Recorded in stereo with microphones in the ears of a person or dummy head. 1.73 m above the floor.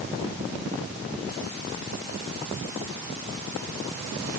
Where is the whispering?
I don't hear whispering.